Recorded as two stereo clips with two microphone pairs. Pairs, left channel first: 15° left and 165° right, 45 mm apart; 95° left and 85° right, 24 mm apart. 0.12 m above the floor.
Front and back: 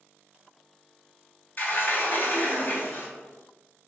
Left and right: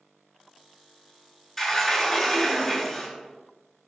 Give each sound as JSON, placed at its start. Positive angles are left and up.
{"t": 1.6, "sound": "a sliding door", "azimuth_deg": 30, "distance_m": 0.8}